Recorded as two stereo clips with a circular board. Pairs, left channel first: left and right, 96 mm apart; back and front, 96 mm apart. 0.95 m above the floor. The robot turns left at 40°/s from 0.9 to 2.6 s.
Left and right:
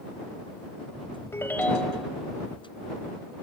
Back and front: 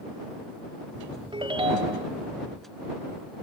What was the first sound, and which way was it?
A ringtone, 30° left.